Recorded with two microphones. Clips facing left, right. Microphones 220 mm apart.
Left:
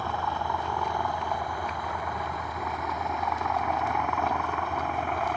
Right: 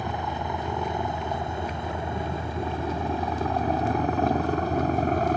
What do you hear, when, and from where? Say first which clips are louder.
0.0 s a helicopter: right 2 dB; 20° right (ahead or behind); by 5.4 s 40° right (ahead or behind)